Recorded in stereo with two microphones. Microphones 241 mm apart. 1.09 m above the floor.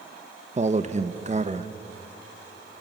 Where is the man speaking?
30° right (ahead or behind), 1.0 m.